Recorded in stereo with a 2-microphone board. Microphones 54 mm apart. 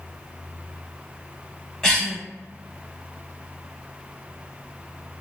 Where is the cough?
15° left (ahead or behind), 1.0 m.